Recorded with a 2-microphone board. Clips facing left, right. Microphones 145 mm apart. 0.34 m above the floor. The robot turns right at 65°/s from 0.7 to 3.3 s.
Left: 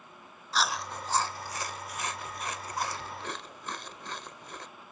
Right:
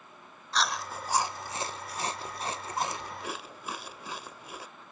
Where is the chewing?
5° left (ahead or behind); by 4.7 s 10° right (ahead or behind).